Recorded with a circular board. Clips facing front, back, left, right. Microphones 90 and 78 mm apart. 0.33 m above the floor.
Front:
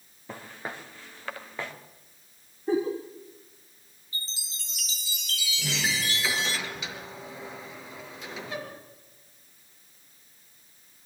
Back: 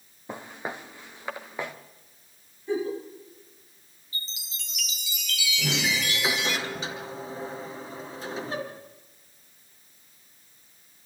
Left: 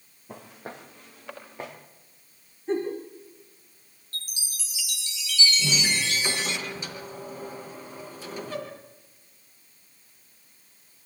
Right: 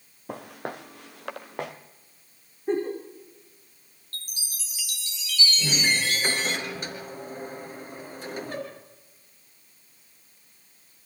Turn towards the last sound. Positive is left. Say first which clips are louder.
# back 2 dB, right 1 dB
turn(degrees=-125)